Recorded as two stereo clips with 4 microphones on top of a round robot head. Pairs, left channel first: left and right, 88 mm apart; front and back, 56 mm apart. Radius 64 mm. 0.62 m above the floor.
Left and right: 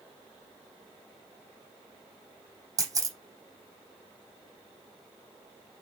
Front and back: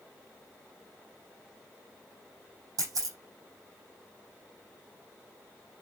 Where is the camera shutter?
140° right, 5.5 m.